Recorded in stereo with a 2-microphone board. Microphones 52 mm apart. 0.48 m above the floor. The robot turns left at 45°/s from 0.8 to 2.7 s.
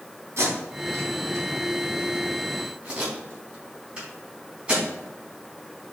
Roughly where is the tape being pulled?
Right.